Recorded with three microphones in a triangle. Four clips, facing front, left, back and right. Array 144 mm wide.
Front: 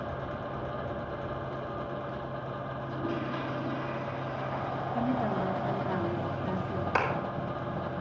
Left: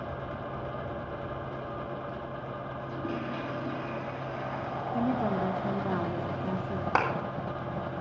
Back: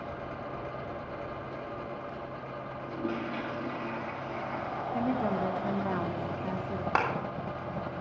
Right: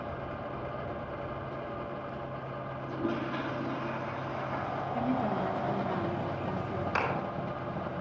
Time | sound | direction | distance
2.8 | a toilet flushing | 140° right | 3.5 m
4.9 | a woman speaking | 135° left | 1.4 m
7.0 | a clap | 120° left | 3 m